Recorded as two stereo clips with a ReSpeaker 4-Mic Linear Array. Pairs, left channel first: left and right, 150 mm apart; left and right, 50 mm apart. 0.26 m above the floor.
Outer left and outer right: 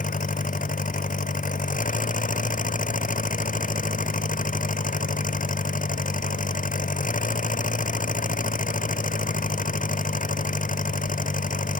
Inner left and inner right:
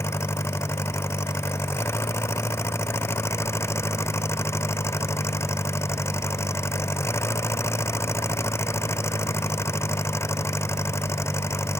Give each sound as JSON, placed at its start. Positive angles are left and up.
{"t": 0.0, "sound": "an engine running", "side_deg": 60}